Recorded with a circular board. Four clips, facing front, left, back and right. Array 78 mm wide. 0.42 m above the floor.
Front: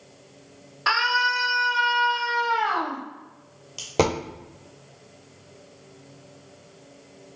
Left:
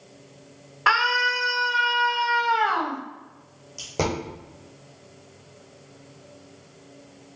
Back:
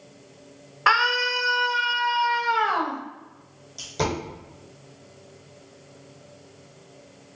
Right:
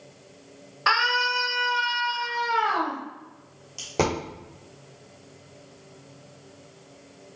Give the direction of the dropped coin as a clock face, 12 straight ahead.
12 o'clock.